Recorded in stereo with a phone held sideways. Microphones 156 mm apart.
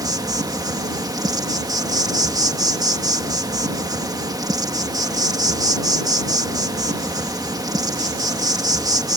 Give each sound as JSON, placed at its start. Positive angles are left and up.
{"t": 0.0, "sound": "an insect", "side_deg": -25}